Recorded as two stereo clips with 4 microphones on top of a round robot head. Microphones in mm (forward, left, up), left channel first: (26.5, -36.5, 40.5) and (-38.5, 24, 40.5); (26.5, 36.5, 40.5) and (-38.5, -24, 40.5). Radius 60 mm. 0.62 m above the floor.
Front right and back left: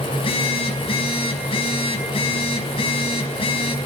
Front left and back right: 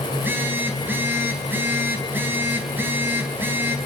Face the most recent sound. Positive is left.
turn(degrees=-70)